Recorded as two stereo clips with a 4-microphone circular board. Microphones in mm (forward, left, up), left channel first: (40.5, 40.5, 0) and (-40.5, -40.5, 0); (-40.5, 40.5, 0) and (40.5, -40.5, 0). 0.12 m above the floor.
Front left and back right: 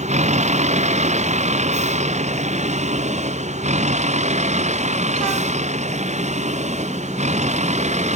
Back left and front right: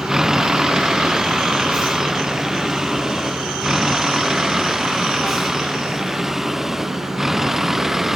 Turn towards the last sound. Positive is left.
turn(degrees=-135)